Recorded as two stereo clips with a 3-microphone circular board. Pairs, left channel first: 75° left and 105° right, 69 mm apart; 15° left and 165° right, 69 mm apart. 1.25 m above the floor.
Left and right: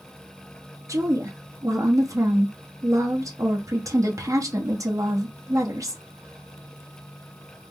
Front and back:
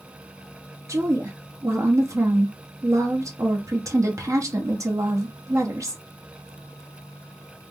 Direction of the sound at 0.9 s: 130° right.